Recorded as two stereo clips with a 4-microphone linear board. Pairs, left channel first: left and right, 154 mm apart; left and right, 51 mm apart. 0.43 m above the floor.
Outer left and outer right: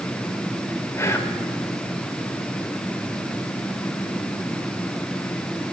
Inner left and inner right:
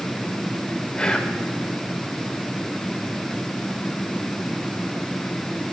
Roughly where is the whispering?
Centre.